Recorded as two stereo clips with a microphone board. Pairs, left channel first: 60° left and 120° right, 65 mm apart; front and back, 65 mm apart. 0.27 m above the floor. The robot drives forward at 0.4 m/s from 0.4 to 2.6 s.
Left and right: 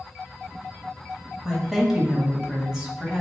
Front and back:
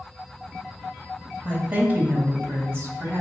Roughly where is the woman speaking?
Behind left.